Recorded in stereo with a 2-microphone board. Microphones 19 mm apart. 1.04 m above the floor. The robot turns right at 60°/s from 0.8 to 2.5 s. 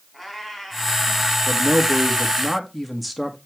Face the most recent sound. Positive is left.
turn(degrees=0)